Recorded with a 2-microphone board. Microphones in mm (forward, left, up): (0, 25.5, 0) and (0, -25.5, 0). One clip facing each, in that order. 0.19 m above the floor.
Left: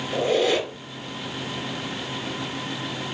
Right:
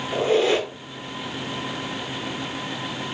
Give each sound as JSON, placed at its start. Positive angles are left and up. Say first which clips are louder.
{"t": 0.1, "sound": "a squeak", "louder": "right 2 dB", "side_deg": -35, "distance_m": 1.3}